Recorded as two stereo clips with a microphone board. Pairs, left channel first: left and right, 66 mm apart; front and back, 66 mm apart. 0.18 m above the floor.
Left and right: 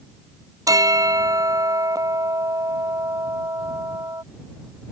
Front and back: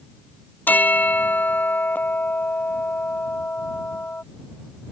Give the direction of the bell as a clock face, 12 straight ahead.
2 o'clock.